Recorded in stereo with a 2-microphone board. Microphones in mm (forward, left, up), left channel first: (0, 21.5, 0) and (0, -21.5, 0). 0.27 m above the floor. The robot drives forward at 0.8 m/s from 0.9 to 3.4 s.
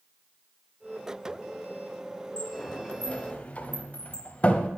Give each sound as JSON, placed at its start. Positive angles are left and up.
{"t": 2.4, "sound": "a sliding door", "side_deg": 25, "distance_m": 1.5}